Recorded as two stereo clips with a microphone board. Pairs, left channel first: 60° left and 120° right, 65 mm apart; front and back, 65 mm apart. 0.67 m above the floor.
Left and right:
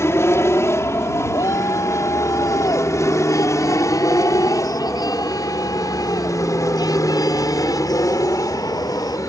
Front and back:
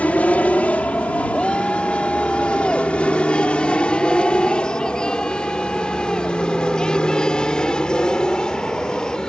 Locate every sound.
0.0 s an aircraft: 55° left; by 9.3 s 75° left
1.3 s a shout: 80° left